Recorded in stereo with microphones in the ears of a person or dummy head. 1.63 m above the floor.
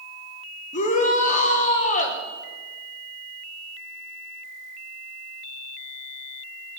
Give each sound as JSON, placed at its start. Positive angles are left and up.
{"t": 0.7, "sound": "a shout", "side_deg": 45, "distance_m": 1.5}